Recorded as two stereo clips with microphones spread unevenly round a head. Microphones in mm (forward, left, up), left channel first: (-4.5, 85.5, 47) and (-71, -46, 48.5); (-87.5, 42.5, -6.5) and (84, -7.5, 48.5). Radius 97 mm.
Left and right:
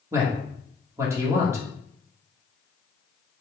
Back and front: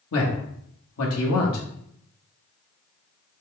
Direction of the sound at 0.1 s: 170° left.